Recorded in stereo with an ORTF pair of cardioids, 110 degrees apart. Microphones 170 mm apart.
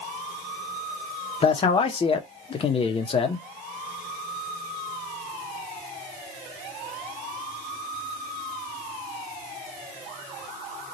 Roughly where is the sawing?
No sawing in this recording.